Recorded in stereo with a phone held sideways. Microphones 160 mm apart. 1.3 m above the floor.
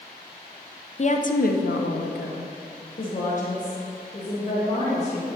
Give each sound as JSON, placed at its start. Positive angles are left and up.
{"t": 1.0, "sound": "a woman speaking", "side_deg": 45, "distance_m": 0.6}